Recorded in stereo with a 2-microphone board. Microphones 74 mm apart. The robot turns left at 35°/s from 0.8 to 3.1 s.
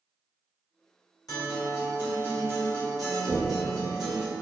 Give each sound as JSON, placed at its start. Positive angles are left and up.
{"t": 1.3, "sound": "a guitar", "azimuth_deg": 60, "distance_m": 1.3}
{"t": 3.3, "sound": "knocking", "side_deg": 35, "distance_m": 1.0}